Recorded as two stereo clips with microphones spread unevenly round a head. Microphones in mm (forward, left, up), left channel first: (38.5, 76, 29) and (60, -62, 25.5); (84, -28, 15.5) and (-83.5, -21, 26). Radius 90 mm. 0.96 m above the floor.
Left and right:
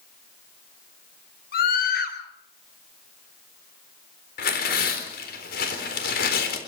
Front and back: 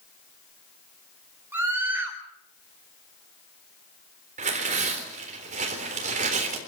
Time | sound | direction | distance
1.5 | a scream | 95° left | 4.5 m
4.4 | tearing paper | 125° left | 3.5 m